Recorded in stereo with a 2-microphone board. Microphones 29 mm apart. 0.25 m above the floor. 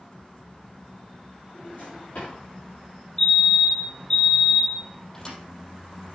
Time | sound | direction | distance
1.5 | a drawer | 55° left (ahead or behind) | 5 m
3.2 | a fire alarm | 25° left (ahead or behind) | 2.5 m
5.1 | a thud | 25° left (ahead or behind) | 4 m